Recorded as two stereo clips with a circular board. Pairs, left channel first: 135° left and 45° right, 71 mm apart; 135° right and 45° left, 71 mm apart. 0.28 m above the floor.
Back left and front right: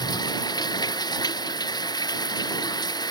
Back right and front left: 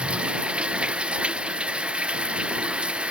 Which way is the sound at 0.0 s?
120° left.